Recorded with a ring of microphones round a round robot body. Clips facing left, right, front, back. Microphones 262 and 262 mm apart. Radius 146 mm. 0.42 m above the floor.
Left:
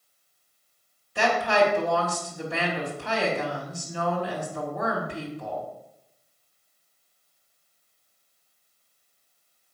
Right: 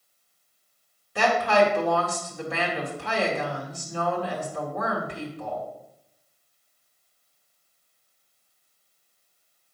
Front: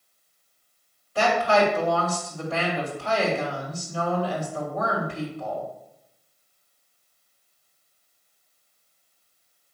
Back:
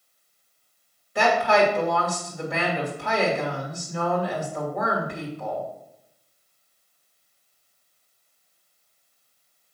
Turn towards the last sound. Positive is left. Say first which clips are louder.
# right 1 dB, back 1 dB
turn(degrees=-105)